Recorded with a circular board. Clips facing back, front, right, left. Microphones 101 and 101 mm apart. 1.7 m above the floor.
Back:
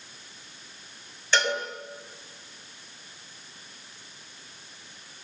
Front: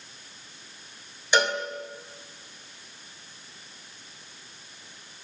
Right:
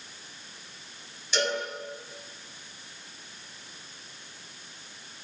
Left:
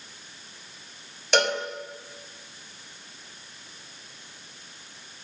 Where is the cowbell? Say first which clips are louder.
Front 2 dB, left 5 dB; 75° left, 4 m.